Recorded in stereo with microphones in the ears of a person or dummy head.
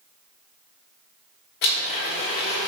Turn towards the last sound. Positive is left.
turn(degrees=50)  # may be behind; listen again after turning